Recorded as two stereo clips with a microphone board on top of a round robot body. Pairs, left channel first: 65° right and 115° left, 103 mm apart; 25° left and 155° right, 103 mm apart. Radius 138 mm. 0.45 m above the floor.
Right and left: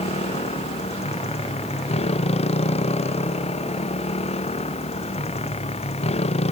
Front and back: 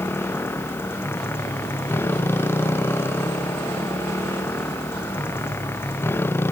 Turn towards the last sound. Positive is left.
turn(degrees=-50)